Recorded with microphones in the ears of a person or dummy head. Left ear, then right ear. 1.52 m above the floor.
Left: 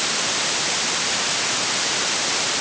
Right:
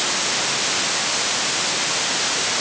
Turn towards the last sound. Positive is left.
No sound to turn to.